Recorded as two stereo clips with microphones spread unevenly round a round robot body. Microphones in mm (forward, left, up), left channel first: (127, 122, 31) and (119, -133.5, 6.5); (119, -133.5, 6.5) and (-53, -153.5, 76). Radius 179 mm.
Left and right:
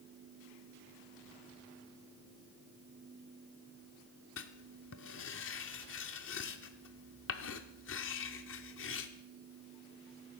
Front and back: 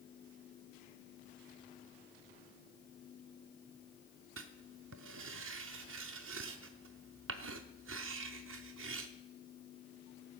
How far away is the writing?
About 0.5 m.